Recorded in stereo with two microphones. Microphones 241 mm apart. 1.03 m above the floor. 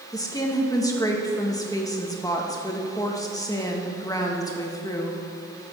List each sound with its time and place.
0.1 s a woman speaking: 15° left (ahead or behind), 1.4 m